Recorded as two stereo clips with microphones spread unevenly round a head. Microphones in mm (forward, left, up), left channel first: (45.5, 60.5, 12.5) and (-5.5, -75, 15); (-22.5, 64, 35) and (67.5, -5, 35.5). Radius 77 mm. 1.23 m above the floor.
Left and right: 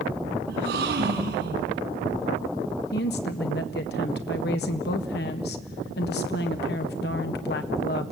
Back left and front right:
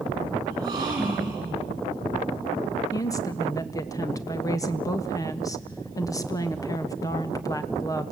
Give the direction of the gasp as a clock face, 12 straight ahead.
3 o'clock.